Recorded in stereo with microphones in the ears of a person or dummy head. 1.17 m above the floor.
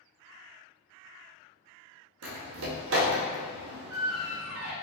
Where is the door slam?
65° right (ahead or behind), 0.7 m.